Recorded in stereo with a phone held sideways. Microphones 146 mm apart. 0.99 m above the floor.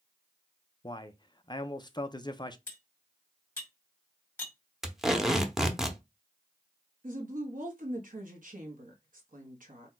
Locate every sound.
0.8 s a man speaking: 30° left (ahead or behind), 0.5 m
2.7 s cutlery clinking: 15° left (ahead or behind), 1.9 m
4.8 s tape being pulled: centre (ahead or behind), 0.6 m
7.0 s a woman speaking: 65° right (ahead or behind), 1.1 m